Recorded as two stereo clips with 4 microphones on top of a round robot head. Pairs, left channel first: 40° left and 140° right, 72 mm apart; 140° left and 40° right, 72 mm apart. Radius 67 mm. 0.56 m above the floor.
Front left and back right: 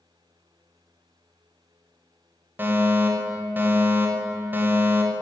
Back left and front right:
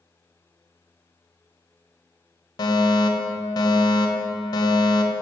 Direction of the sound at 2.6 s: 160° left.